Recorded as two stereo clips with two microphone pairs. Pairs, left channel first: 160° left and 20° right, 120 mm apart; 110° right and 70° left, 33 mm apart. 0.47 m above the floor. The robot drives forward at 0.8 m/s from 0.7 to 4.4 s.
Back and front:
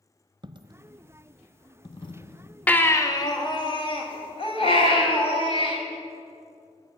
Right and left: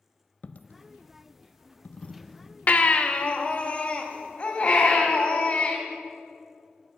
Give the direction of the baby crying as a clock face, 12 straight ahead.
4 o'clock.